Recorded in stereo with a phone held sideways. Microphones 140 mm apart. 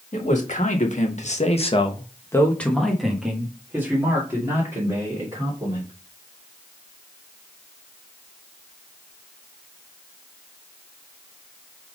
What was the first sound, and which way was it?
A man speaking, 60° left (ahead or behind).